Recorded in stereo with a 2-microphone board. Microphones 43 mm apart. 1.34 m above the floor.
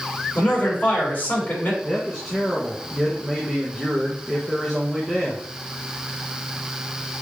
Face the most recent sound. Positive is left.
turn(degrees=-10)  # may be behind; listen again after turning